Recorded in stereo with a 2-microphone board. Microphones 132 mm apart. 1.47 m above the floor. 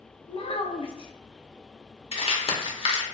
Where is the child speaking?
45° left (ahead or behind), 0.5 m.